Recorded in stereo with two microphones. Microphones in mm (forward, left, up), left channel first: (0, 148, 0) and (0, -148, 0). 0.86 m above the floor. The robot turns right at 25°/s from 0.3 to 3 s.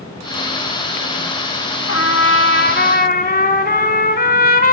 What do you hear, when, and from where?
1.9 s a trumpet: 55° left (ahead or behind), 1.4 m; by 4.7 s 30° left (ahead or behind), 1.4 m